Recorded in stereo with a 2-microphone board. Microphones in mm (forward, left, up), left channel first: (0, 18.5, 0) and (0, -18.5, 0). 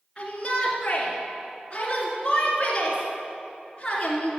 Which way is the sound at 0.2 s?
25° left (ahead or behind).